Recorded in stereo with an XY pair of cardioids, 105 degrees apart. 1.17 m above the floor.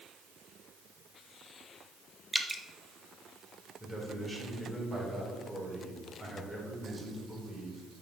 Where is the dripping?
5° right, 0.9 m.